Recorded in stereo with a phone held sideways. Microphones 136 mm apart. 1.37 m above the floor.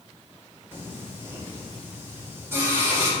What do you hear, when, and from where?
0.7 s singing: 20° right (ahead or behind), 2.5 m